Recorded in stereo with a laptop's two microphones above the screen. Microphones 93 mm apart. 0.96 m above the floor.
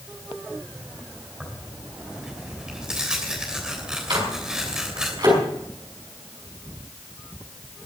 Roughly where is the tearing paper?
Centre.